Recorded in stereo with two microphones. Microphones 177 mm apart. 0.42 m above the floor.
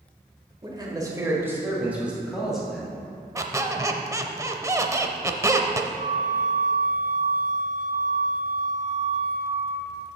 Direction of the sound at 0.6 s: 25° right (ahead or behind).